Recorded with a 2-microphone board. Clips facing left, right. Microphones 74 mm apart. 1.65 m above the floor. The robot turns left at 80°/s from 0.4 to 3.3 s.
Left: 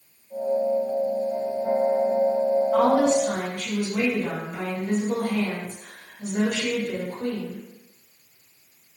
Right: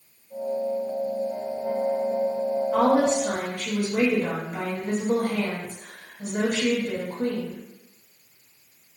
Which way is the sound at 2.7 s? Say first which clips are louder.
Right 1 dB; straight ahead.